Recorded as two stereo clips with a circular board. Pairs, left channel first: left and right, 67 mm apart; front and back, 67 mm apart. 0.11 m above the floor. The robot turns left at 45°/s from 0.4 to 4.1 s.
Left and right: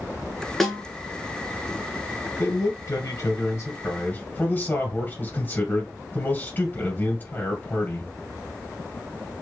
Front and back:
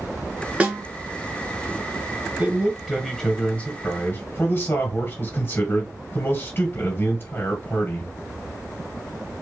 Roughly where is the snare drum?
Behind.